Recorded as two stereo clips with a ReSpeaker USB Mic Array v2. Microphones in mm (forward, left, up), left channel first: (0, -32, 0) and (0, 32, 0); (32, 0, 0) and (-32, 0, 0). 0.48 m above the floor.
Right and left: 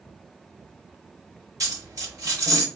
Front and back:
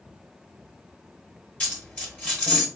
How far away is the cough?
I don't hear a cough.